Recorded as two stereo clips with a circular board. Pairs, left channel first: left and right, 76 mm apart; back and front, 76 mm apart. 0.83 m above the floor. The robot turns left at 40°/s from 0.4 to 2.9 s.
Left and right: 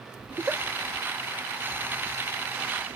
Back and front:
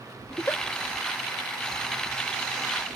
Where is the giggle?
130° right, 0.6 m; by 0.6 s 140° right, 0.6 m.